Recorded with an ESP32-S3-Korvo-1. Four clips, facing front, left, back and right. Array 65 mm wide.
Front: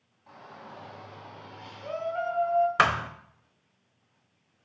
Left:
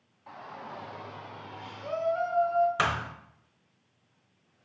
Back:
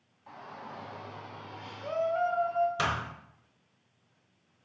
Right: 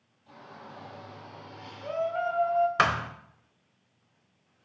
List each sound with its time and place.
0.3 s a shout: 100° left, 2.5 m; by 2.7 s 85° right, 1.9 m
2.8 s a thud: 15° right, 0.8 m